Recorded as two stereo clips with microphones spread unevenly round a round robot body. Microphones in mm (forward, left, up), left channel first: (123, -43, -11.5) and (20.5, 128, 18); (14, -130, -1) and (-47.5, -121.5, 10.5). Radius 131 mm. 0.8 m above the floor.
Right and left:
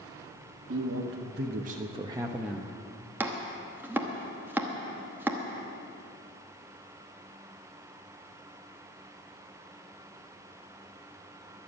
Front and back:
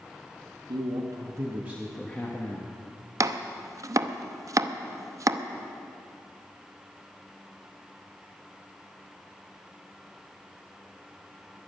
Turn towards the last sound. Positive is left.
turn(degrees=-155)